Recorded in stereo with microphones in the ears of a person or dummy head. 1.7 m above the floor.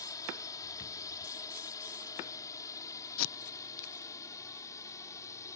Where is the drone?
20° left (ahead or behind); by 5.6 s 15° left (ahead or behind).